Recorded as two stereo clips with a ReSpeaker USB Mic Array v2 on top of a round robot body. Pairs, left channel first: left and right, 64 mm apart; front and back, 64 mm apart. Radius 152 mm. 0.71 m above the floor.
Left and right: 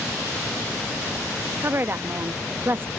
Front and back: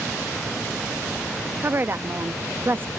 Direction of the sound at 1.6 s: 135° right.